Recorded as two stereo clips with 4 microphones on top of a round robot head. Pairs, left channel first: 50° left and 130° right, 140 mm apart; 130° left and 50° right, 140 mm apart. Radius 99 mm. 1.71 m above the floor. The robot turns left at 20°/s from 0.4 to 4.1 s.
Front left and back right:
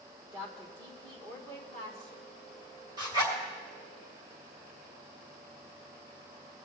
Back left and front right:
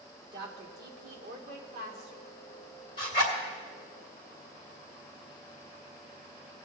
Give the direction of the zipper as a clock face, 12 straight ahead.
6 o'clock.